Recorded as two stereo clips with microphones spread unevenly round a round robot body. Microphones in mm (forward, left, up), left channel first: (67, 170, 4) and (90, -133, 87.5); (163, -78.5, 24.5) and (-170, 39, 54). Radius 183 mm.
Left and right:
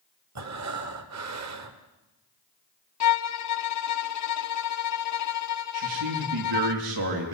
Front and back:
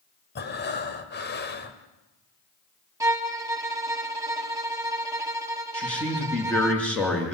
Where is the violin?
80° left, 1.3 m.